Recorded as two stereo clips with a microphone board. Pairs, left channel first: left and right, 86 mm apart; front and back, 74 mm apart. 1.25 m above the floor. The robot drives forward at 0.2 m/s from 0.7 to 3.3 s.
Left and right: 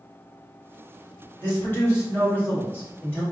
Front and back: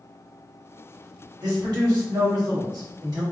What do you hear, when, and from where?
1.4 s a man speaking: 155° left, 1.3 m; by 3.2 s 160° left, 1.6 m